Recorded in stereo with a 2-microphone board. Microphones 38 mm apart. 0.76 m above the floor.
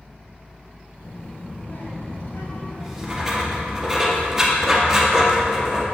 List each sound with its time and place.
1.0 s a child speaking: 70° left (ahead or behind), 3.5 m; by 3.8 s 40° left (ahead or behind), 1.6 m
2.8 s writing: 10° right (ahead or behind), 1.7 m